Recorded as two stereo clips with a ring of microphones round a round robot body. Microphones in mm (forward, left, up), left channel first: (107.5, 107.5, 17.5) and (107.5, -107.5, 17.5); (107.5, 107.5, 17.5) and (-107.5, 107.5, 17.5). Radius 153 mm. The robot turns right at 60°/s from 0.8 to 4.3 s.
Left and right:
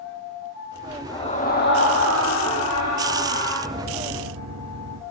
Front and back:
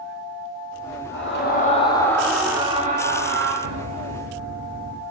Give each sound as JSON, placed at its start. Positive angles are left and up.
{"t": 1.1, "sound": "a scream", "azimuth_deg": 15, "distance_m": 7.5}
{"t": 3.6, "sound": "a piano", "azimuth_deg": -170, "distance_m": 3.5}